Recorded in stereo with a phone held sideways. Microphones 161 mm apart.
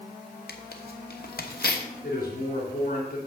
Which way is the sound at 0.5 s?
70° left (ahead or behind).